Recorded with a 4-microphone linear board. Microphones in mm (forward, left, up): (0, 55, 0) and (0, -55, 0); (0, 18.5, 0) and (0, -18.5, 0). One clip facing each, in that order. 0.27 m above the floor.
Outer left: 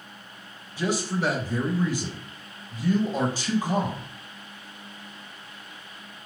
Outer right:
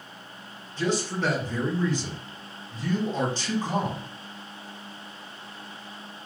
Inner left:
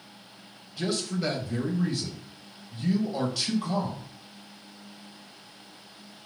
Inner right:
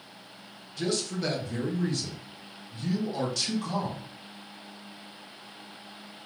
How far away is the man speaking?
About 1.0 m.